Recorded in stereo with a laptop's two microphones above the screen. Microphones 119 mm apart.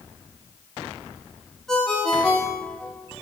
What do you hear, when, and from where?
1.7 s a ringtone: 5° left (ahead or behind), 1.8 m